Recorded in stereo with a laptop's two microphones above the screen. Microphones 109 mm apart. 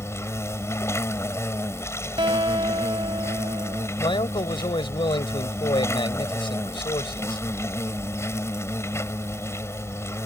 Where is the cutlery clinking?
I don't hear cutlery clinking.